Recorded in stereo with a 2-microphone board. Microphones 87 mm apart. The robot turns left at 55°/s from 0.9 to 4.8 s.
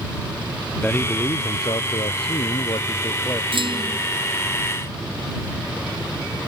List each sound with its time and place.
0.8 s a man speaking: 165° left; by 3.4 s 25° left
3.5 s a clunk: 75° right (ahead or behind); by 4.0 s 60° right (ahead or behind)